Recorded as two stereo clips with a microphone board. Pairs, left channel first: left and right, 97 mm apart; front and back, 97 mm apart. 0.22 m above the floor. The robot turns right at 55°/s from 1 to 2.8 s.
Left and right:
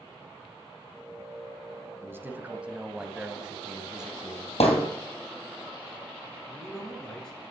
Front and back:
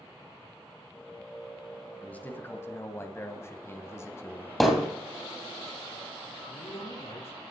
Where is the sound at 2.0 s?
60° right, 1.0 m; by 4.5 s 20° right, 1.0 m.